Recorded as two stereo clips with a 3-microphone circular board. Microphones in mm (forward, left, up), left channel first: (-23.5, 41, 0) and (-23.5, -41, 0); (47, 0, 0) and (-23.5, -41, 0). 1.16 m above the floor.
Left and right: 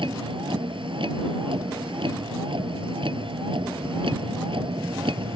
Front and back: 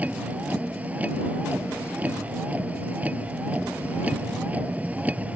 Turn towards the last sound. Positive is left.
turn(degrees=-80)